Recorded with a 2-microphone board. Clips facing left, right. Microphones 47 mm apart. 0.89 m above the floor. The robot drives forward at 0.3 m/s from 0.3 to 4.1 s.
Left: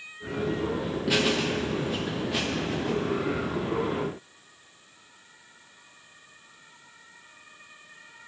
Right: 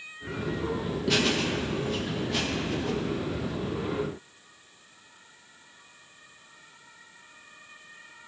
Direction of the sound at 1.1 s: 10° left (ahead or behind).